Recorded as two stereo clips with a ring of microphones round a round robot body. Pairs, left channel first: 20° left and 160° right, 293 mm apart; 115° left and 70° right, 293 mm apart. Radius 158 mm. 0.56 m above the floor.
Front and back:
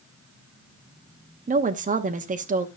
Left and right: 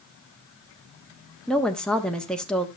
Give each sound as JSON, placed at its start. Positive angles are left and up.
{"t": 1.5, "sound": "a woman speaking", "azimuth_deg": -165, "distance_m": 1.0}